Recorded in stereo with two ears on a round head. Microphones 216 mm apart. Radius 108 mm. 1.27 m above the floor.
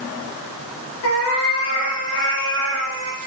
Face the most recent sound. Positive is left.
turn(degrees=55)  # may be behind; listen again after turning